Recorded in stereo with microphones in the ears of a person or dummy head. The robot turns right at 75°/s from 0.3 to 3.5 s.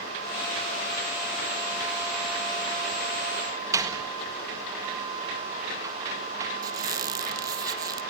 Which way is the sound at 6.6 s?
20° right (ahead or behind).